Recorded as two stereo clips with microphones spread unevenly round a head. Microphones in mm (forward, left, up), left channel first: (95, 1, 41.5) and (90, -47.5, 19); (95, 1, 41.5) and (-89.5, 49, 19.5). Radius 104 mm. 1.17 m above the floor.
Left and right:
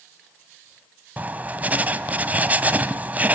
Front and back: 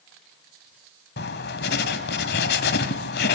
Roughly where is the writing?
Ahead.